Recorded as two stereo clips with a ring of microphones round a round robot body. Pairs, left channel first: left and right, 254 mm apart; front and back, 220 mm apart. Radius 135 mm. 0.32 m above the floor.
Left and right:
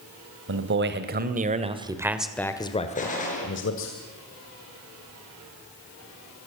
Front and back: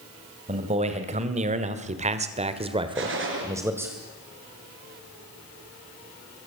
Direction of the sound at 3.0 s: 150° left.